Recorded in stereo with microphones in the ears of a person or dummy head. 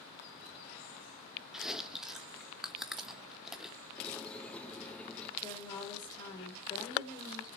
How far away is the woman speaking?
About 5.5 m.